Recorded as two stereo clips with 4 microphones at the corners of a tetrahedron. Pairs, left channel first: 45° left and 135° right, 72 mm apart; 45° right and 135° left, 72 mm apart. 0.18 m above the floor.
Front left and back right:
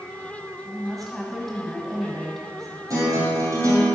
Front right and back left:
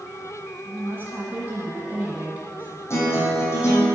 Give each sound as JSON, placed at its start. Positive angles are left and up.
{"t": 0.7, "sound": "a woman speaking", "azimuth_deg": 135, "distance_m": 1.2}
{"t": 2.9, "sound": "a guitar", "azimuth_deg": -95, "distance_m": 2.5}